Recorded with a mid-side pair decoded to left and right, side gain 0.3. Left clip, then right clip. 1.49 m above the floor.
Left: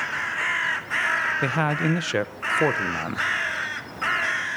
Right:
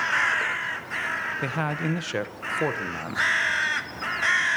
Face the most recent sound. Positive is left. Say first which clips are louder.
# left 4 dB
turn(degrees=45)